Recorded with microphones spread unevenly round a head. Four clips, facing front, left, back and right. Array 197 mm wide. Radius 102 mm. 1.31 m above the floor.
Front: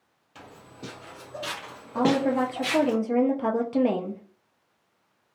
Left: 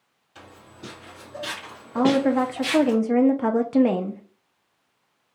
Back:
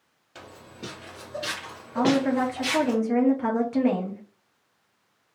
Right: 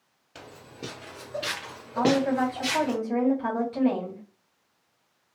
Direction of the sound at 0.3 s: 95° right.